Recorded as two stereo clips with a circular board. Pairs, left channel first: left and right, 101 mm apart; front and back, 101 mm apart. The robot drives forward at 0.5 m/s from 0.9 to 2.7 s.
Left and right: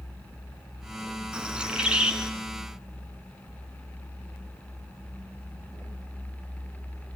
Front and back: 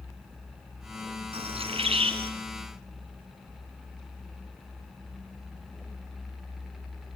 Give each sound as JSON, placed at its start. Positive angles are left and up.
{"t": 1.3, "sound": "a bird", "azimuth_deg": -170, "distance_m": 3.0}